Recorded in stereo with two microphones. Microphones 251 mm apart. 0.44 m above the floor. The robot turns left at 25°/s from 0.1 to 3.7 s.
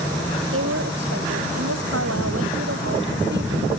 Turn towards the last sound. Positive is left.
turn(degrees=-145)